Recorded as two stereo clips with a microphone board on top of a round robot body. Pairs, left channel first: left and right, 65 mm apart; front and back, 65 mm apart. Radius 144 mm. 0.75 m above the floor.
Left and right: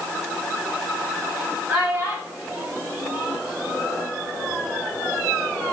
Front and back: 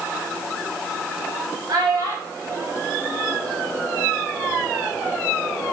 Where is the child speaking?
155° right, 4 m.